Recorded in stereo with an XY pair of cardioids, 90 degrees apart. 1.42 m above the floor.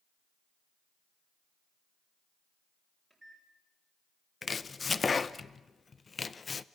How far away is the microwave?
About 6 m.